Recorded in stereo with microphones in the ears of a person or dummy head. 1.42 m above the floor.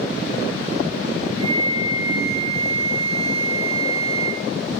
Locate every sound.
1.4 s a flute: 75° right (ahead or behind), 3 m